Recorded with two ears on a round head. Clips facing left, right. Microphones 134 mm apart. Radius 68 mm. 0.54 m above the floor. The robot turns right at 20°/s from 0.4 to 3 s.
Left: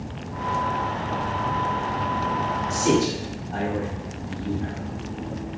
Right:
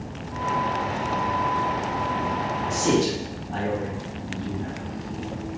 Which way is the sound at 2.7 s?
20° left (ahead or behind).